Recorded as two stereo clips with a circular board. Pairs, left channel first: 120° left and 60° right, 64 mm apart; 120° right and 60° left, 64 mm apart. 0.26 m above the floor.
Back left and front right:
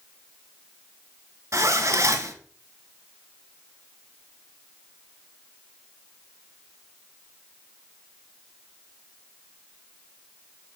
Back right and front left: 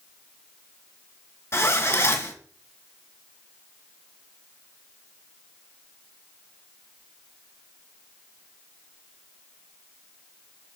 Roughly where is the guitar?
I don't hear a guitar.